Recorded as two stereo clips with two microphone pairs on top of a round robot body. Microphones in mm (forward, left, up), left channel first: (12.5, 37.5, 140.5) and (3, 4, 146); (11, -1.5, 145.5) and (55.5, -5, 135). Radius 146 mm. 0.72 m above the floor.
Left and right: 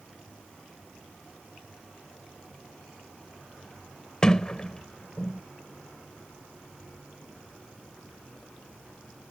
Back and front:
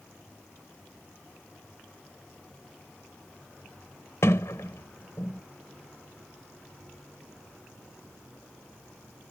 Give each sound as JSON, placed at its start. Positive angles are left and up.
{"t": 4.2, "sound": "a sliding door", "azimuth_deg": 155}